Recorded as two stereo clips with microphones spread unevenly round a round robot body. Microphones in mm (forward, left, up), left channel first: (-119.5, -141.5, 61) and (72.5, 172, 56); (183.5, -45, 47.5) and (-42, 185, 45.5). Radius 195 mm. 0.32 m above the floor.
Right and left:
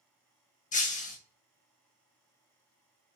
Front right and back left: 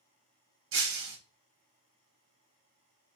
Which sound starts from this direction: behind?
Breaking glass, at 0.7 s.